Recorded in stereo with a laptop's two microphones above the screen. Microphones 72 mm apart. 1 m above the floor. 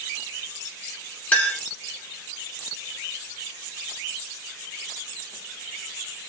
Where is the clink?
20° left (ahead or behind), 1.5 m.